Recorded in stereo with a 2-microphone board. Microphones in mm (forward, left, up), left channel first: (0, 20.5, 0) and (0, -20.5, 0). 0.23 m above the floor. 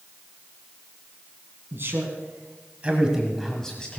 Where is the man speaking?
55° right (ahead or behind), 2.5 m; by 4.0 s 25° left (ahead or behind), 1.6 m.